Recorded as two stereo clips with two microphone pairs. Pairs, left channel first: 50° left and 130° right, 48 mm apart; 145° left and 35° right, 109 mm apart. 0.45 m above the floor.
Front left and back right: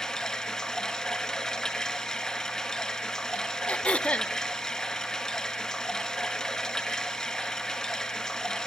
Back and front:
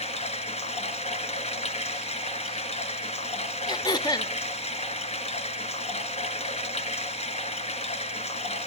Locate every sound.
0.0 s running water: 130° left, 1.4 m
3.7 s throat clearing: 110° left, 0.7 m